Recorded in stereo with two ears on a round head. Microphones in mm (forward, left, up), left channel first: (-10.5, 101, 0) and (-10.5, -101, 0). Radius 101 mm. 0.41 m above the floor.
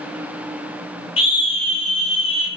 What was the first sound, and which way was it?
A scream, 25° left (ahead or behind).